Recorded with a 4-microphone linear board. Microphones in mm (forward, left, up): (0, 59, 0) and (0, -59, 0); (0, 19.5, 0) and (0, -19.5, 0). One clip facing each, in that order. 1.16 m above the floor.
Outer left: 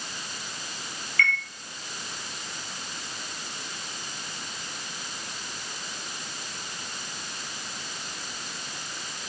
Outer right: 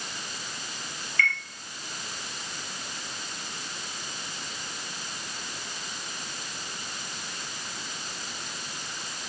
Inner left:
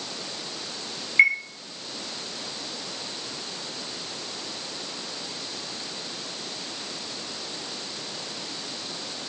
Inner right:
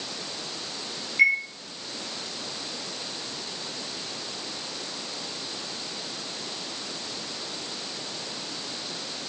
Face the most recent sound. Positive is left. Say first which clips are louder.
# outer left 2 dB, inner left 2 dB
turn(degrees=50)  # may be behind; listen again after turning